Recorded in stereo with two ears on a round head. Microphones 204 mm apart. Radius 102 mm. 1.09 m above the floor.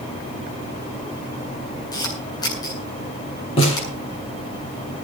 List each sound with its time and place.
1.9 s a camera shutter: 20° left (ahead or behind), 8.5 m
3.6 s a snare drum: 25° left (ahead or behind), 7.5 m